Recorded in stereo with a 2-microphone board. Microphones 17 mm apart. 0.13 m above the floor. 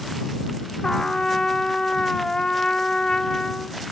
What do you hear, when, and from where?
0.8 s a trumpet: 35° left (ahead or behind)